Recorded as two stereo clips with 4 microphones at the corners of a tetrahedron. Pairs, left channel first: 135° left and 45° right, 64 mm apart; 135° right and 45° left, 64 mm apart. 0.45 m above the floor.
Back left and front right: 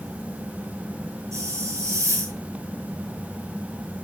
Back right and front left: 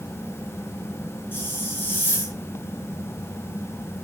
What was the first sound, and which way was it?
A hiss, 80° right.